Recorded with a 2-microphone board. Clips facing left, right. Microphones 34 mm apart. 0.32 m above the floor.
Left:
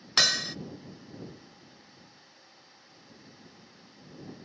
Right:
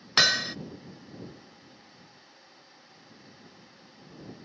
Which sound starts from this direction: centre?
Hammering, at 0.2 s.